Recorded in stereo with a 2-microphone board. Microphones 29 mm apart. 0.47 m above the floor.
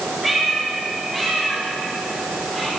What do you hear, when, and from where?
0.2 s a cat meowing: 5° right (ahead or behind), 7 m; by 2.7 s 5° left (ahead or behind), 8.5 m